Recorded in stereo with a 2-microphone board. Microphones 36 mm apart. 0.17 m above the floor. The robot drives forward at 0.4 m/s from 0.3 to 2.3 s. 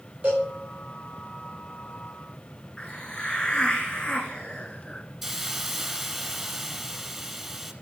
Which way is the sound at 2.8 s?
35° left (ahead or behind).